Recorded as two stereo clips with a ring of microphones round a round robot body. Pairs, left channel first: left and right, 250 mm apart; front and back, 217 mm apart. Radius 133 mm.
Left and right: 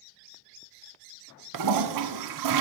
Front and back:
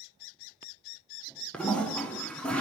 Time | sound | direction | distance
1.5 | a toilet flushing | 85° right | 0.7 m